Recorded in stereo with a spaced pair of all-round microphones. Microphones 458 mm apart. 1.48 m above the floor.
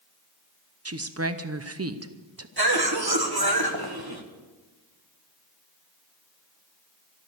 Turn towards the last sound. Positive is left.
turn(degrees=-50)  # may be behind; listen again after turning